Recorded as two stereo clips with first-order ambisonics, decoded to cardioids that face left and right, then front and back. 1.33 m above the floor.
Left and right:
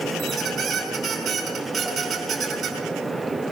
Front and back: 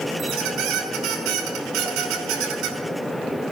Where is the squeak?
160° right, 5 m.